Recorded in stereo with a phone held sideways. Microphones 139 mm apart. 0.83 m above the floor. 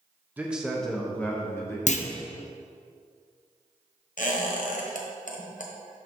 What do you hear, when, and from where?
0.4 s a man speaking: 15° right (ahead or behind), 0.9 m; by 1.8 s 20° left (ahead or behind), 1.7 m
1.9 s a clunk: 60° left (ahead or behind), 0.5 m
4.2 s a squeak: 70° left (ahead or behind), 1.1 m